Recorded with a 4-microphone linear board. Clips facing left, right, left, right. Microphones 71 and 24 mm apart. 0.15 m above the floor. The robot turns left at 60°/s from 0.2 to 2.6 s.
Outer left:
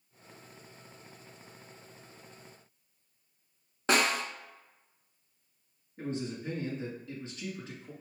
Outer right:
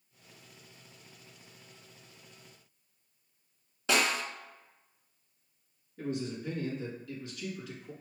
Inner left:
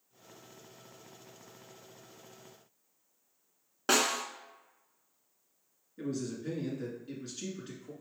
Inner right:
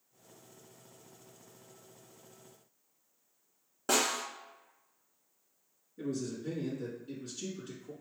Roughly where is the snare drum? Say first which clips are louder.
Outer left 2 dB, inner left 2 dB; left.